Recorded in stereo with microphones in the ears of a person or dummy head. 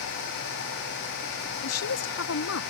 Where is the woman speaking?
75° left (ahead or behind).